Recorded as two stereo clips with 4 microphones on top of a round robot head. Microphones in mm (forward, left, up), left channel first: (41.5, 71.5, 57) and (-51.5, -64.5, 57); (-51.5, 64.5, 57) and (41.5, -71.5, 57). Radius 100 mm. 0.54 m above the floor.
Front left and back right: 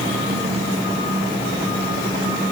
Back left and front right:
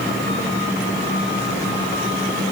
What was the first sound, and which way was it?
Only background noise.